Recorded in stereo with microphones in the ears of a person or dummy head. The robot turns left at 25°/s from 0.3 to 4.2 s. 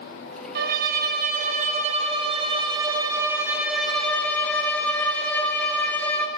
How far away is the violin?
About 0.8 m.